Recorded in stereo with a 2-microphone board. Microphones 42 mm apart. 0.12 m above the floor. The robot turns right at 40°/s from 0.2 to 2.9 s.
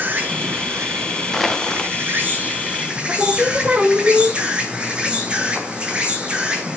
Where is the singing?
30° right (ahead or behind), 3 m.